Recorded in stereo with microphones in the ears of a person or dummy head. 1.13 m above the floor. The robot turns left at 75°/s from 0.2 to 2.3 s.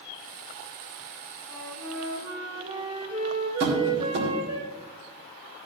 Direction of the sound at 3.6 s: 60° right (ahead or behind).